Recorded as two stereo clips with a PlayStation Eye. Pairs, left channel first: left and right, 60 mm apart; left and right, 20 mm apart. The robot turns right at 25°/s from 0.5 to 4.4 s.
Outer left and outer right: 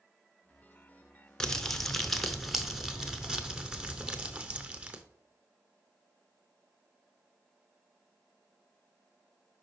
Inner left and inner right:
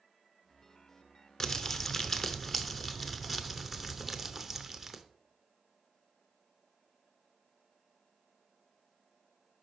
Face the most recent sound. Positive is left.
turn(degrees=-20)  # may be behind; listen again after turning